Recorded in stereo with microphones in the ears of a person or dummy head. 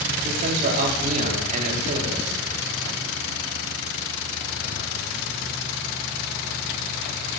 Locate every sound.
0.2 s a man speaking: 45° right (ahead or behind), 4 m